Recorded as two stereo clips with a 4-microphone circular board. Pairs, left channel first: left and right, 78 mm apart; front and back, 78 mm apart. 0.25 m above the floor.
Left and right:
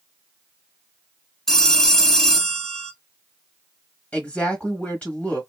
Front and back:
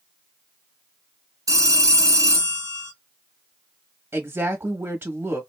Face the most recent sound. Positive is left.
turn(degrees=150)